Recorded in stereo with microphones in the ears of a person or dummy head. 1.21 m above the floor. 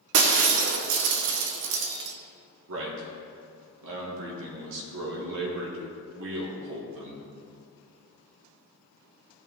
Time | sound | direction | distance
0.1 | breaking glass | 50° right (ahead or behind) | 0.9 m
2.7 | a man speaking | 70° right (ahead or behind) | 3 m